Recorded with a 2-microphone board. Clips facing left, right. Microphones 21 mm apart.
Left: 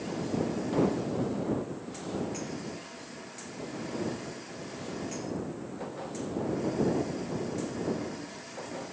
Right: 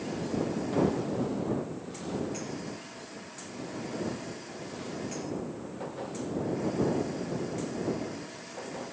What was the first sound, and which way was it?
Only background noise.